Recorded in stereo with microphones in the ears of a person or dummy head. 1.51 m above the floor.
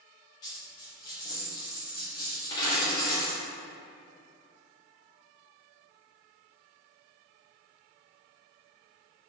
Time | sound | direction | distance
0.4 | a dropped coin | 25° left (ahead or behind) | 1.0 m